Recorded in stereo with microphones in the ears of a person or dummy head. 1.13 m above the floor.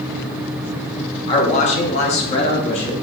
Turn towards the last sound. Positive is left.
turn(degrees=35)  # may be behind; listen again after turning